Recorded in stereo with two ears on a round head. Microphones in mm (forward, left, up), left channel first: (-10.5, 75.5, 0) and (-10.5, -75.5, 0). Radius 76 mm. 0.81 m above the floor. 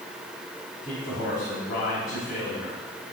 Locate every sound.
0.8 s a man speaking: 55° left (ahead or behind), 4 m